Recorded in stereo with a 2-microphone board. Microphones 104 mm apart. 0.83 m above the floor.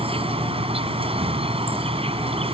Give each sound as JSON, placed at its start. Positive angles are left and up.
{"t": 0.0, "sound": "an insect", "side_deg": -75}